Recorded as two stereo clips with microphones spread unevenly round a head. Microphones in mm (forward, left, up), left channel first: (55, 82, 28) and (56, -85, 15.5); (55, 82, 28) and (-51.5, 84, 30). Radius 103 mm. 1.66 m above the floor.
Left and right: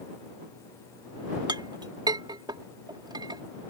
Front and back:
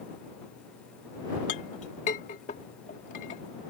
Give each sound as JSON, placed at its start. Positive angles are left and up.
{"t": 1.5, "sound": "a clink", "azimuth_deg": -25}